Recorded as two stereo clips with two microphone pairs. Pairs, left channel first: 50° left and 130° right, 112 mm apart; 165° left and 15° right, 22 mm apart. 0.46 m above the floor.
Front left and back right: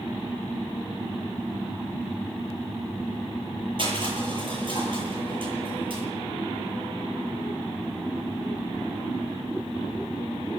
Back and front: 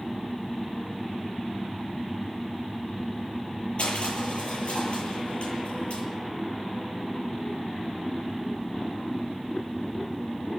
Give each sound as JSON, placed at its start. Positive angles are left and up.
{"t": 3.8, "sound": "crushing", "azimuth_deg": -170, "distance_m": 10.0}